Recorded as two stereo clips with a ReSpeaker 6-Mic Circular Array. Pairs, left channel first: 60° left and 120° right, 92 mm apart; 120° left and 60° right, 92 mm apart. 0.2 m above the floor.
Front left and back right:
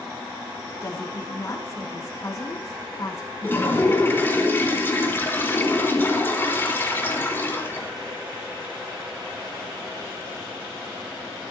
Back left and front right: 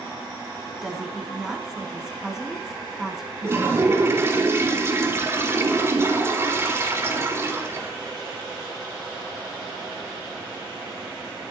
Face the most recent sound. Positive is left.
turn(degrees=-5)